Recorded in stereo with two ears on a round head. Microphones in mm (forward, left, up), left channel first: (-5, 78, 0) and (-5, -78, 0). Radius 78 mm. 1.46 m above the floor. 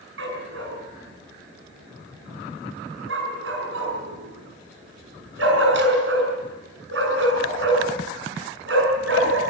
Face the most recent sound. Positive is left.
turn(degrees=-80)